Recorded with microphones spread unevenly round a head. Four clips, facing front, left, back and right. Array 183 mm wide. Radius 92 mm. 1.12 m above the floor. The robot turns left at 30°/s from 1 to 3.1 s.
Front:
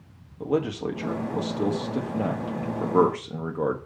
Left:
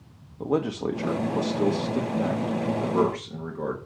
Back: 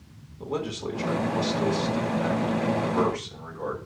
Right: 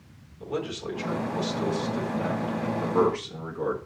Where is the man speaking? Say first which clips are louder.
Left 6 dB, front 5 dB; 65° left, 1.3 m; by 3.8 s straight ahead, 1.3 m.